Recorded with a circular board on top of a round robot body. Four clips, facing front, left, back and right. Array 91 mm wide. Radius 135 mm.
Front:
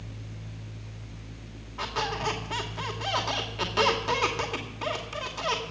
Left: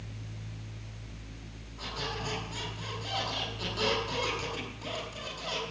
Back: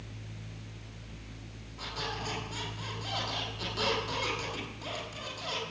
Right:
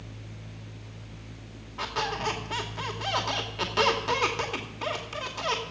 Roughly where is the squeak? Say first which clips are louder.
Right 7 dB, front 8 dB; ahead right.